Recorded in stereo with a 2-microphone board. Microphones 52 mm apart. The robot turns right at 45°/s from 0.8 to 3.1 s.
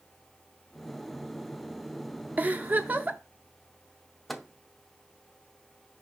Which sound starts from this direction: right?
A giggle, at 2.4 s.